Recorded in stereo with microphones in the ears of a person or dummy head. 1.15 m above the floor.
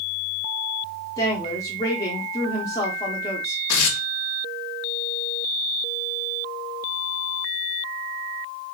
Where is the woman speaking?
20° left (ahead or behind), 0.6 m.